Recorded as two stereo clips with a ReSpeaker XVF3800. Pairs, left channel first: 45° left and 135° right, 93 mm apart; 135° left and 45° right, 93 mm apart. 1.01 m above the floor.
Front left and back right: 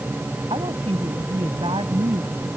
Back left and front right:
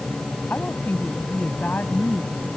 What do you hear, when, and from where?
0.5 s a woman speaking: 155° right